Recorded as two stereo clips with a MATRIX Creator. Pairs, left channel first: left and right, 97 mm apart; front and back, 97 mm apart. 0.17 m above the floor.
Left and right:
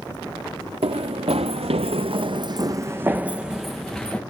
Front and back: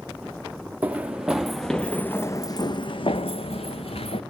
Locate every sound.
0.8 s running footsteps: 105° right, 1.0 m; by 4.2 s 5° left, 1.1 m